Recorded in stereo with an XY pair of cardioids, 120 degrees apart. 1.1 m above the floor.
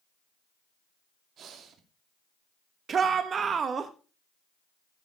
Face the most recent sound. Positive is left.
turn(degrees=-40)